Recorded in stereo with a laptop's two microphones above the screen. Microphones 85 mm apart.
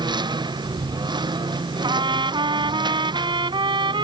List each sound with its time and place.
0.0 s a lawn mower: 60° right (ahead or behind)
1.8 s a trumpet: 70° right (ahead or behind)